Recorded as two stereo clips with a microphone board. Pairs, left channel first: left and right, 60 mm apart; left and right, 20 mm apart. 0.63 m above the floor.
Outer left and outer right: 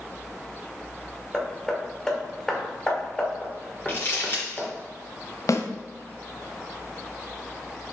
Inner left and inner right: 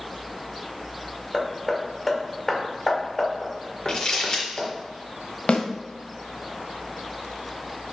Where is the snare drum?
60° left (ahead or behind), 1.4 m.